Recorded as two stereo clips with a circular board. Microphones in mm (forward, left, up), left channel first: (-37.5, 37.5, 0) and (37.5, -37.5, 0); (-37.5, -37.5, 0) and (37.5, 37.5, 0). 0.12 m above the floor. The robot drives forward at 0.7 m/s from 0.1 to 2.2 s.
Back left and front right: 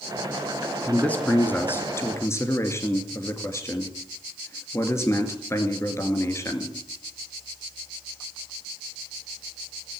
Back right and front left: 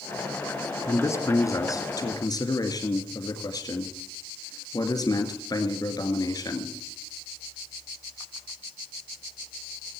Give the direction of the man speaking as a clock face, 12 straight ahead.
5 o'clock.